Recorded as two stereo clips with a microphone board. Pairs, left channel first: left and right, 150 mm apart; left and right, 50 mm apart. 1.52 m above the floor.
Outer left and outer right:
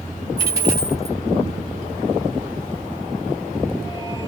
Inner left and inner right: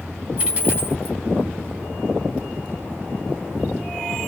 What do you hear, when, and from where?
0.4 s a dropped coin: 20° right (ahead or behind), 2 m